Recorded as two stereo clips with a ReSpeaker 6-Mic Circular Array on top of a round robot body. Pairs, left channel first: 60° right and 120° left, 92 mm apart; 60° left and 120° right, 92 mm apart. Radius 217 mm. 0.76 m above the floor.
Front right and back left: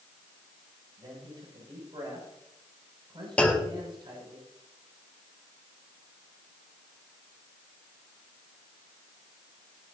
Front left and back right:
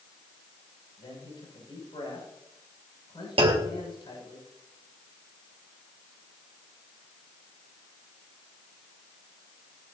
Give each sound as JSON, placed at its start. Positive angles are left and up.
{"t": 1.0, "sound": "a man speaking", "azimuth_deg": 90, "distance_m": 7.0}
{"t": 3.4, "sound": "a clunk", "azimuth_deg": -140, "distance_m": 1.9}